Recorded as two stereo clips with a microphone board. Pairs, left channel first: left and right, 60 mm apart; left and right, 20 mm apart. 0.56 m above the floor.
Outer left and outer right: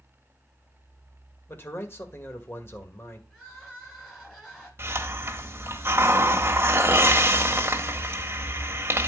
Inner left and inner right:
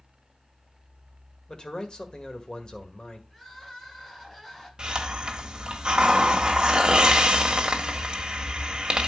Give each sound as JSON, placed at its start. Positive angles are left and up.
{"t": 1.5, "sound": "a man speaking", "side_deg": 40, "distance_m": 1.7}
{"t": 3.3, "sound": "crying", "side_deg": 5, "distance_m": 7.0}
{"t": 4.8, "sound": "a hiss", "side_deg": -45, "distance_m": 1.2}